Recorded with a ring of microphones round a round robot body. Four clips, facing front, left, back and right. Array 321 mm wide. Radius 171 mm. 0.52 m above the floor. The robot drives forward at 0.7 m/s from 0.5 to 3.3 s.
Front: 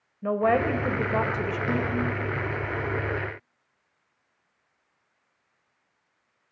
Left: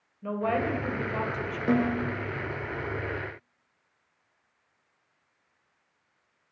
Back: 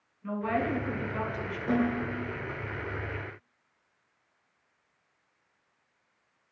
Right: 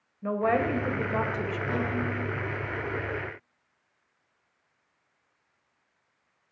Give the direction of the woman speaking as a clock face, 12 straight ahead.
1 o'clock.